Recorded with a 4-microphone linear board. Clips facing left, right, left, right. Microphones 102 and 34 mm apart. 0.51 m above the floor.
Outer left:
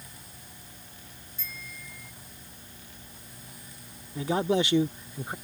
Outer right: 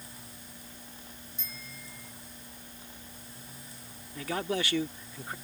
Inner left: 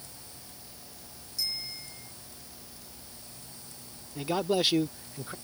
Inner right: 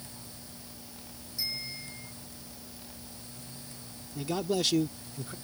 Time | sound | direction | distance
1.4 | a bicycle bell | 20° right (ahead or behind) | ?
4.2 | a man speaking | 20° left (ahead or behind) | ?